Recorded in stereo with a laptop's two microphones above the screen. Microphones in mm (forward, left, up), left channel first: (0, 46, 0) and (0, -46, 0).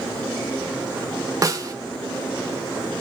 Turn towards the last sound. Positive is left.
turn(degrees=-40)  # may be behind; listen again after turning